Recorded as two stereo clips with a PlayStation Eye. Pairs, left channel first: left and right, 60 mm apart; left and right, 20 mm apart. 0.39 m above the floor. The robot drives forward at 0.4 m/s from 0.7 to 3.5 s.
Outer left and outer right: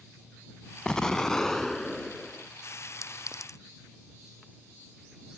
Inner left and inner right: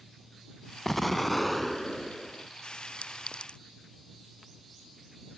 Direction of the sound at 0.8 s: 15° left (ahead or behind).